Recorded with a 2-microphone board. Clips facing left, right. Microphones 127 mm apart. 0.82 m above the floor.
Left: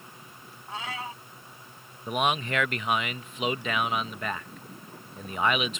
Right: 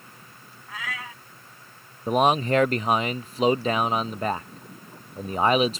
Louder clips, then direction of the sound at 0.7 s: Left 1 dB; 30° left (ahead or behind).